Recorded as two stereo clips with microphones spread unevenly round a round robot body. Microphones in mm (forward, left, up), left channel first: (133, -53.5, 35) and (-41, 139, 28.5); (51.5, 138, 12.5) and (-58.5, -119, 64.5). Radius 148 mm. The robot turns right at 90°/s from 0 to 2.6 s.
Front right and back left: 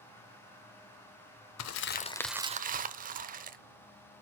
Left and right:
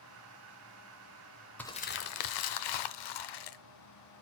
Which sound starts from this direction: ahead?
Crumpling, at 1.6 s.